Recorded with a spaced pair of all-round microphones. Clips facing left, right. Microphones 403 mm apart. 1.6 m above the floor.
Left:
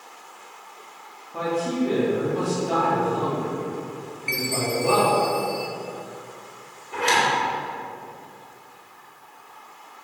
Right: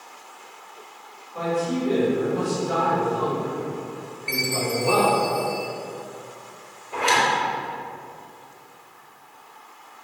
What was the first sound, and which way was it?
A man speaking, 75° left (ahead or behind).